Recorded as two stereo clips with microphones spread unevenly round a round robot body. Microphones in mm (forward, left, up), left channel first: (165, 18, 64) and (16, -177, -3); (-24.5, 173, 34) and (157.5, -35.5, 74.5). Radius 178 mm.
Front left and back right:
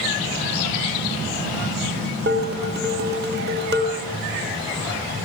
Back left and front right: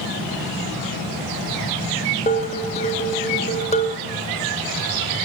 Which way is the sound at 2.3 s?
165° right.